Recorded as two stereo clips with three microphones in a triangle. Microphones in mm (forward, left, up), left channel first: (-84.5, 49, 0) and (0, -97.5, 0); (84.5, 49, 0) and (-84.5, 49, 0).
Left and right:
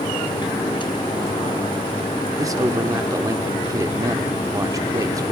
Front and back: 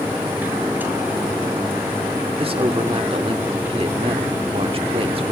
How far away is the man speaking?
About 1.4 m.